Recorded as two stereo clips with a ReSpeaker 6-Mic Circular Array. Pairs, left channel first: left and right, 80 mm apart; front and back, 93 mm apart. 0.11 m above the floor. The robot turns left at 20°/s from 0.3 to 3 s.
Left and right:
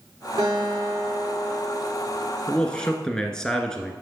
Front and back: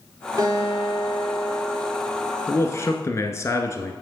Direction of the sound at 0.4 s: 130° right.